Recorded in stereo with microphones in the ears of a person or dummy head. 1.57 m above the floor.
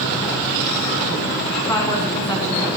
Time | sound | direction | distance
1.7 | a woman speaking | 15° left (ahead or behind) | 1.3 m